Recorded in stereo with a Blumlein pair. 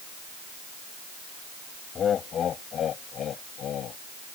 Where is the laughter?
25° left; by 4.0 s 30° left.